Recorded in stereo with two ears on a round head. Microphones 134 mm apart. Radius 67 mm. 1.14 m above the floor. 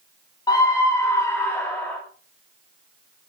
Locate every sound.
0.5 s a scream: 25° left (ahead or behind), 3 m; by 2.0 s 5° left (ahead or behind), 4.5 m